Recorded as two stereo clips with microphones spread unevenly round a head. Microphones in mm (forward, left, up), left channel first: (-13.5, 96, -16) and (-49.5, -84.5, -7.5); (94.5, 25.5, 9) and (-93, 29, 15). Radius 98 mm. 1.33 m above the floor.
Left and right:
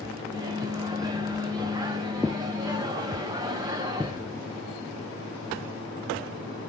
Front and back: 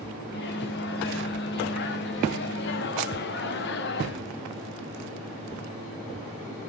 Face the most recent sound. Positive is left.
turn(degrees=-35)